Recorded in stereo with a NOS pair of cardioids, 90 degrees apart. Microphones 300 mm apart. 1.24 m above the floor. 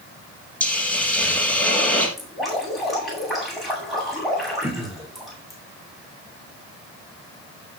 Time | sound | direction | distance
0.6 | a hiss | 5° left | 5 m
2.2 | dripping | straight ahead | 9 m
4.6 | throat clearing | 5° right | 4 m